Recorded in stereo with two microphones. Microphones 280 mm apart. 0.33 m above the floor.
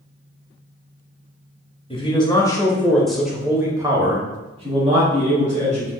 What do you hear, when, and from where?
1.9 s a man speaking: 20° left (ahead or behind), 1.0 m; by 5.9 s 25° right (ahead or behind), 1.7 m